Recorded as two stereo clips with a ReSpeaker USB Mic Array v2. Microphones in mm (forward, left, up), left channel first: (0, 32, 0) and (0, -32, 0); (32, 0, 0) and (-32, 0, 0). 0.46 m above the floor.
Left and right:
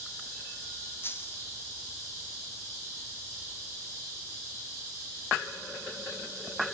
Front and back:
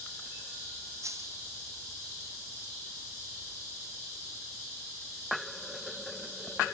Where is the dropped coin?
145° left, 1.4 m.